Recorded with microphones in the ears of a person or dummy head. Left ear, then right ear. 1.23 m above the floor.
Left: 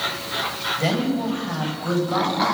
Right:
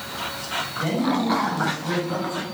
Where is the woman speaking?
80° left, 7 m.